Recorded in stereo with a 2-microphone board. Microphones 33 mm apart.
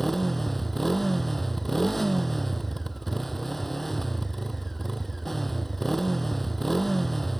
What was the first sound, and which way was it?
A motorcycle, 5° left (ahead or behind).